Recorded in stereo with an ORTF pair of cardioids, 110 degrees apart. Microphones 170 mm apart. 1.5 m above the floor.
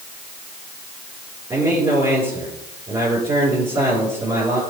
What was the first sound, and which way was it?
A man speaking, 20° right.